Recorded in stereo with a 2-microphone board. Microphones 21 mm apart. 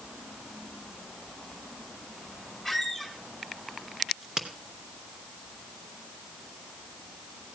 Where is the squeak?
10° right (ahead or behind), 3.5 m.